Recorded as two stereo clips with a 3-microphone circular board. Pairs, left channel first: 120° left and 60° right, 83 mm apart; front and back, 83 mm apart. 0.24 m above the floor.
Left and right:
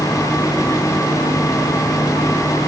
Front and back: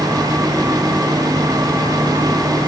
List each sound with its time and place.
Only background noise.